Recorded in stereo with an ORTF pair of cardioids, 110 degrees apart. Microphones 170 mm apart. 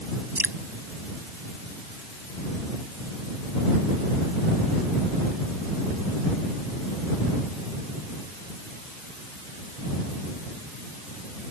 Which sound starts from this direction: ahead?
Dripping, at 0.4 s.